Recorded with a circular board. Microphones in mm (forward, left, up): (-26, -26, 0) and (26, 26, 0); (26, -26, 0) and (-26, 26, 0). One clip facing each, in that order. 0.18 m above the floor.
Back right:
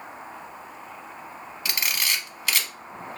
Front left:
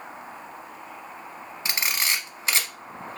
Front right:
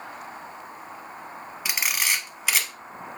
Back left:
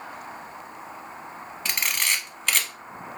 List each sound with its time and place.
1.6 s a camera shutter: 30° left, 0.5 m